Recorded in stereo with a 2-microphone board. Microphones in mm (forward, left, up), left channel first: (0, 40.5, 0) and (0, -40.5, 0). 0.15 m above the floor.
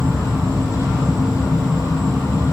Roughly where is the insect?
Centre.